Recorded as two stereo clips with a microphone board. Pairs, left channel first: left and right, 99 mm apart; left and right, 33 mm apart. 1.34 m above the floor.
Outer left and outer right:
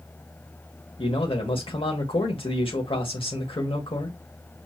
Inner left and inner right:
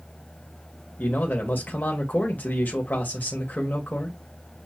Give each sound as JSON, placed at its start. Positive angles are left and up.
{"t": 1.0, "sound": "a man speaking", "side_deg": 65, "distance_m": 1.7}